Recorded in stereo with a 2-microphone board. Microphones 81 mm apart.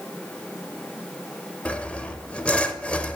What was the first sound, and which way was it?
Sawing, 15° left (ahead or behind).